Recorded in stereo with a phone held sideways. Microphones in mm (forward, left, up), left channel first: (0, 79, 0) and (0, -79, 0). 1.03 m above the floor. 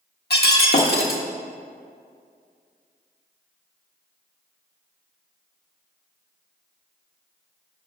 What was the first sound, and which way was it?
Breaking glass, 75° left (ahead or behind).